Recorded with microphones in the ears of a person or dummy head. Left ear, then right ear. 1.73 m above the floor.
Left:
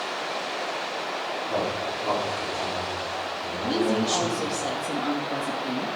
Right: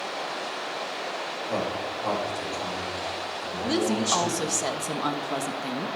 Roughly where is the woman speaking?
Right.